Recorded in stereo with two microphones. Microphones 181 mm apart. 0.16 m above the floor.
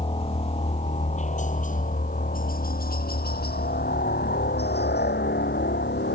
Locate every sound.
0.0 s a helicopter: 30° left (ahead or behind); by 6.2 s 70° left (ahead or behind)